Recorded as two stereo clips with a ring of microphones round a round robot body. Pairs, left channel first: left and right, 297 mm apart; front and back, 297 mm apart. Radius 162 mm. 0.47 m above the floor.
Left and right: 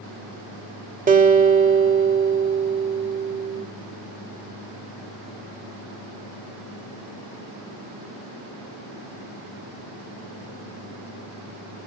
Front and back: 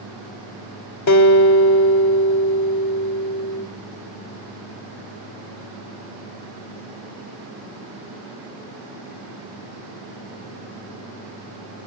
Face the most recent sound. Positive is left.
turn(degrees=-30)